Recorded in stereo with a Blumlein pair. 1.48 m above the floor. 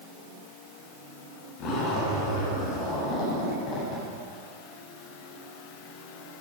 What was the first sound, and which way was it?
A zipper, 35° left.